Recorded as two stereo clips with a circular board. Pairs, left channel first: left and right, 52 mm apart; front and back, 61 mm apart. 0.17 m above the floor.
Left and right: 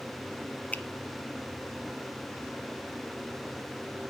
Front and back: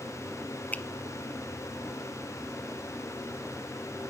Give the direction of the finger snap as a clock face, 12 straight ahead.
11 o'clock.